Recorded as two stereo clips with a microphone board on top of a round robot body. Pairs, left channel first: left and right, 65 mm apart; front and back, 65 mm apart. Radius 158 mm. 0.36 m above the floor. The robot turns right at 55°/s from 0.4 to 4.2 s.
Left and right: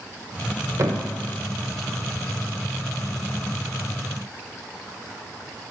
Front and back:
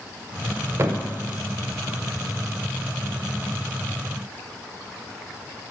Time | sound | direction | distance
0.8 | a thud | 130° right | 0.7 m